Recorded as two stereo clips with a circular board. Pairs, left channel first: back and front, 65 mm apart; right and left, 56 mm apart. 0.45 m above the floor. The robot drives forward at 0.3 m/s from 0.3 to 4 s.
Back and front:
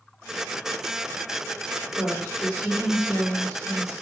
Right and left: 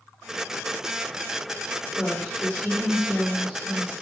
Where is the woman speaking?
145° right, 2.0 m; by 3.9 s 155° right, 2.5 m.